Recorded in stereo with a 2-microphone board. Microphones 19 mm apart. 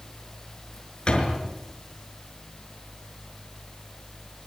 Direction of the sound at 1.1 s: 45° left (ahead or behind).